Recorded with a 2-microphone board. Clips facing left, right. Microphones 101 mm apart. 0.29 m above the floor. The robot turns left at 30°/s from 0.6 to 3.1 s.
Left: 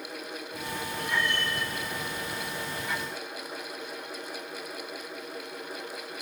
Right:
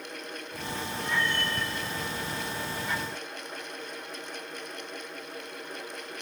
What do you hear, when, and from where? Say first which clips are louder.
1.0 s a cat meowing: even; 90° left, 2.5 m; by 1.5 s 70° left (ahead or behind), 2.5 m